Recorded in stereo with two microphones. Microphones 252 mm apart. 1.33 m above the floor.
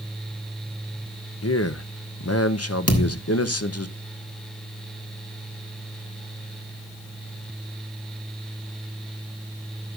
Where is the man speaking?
70° left (ahead or behind), 0.7 m.